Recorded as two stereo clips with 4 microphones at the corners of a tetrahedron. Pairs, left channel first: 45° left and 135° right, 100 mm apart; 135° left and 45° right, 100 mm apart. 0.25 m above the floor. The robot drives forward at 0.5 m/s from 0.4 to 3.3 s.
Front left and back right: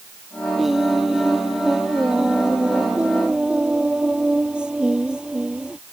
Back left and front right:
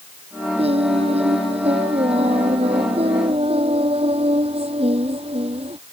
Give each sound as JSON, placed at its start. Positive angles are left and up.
{"t": 0.6, "sound": "singing", "azimuth_deg": -45}